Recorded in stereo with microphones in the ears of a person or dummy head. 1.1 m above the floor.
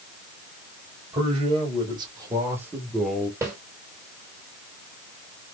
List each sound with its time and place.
1.1 s a man speaking: 25° right (ahead or behind), 2.5 m; by 3.3 s 15° left (ahead or behind), 0.8 m
3.4 s a snare drum: 15° right (ahead or behind), 1.9 m